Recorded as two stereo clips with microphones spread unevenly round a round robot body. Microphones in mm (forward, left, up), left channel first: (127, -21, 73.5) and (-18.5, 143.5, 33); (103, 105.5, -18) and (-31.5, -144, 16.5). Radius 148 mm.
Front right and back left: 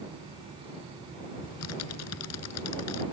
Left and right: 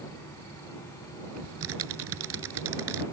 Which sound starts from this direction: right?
Typing on a keyboard, at 1.4 s.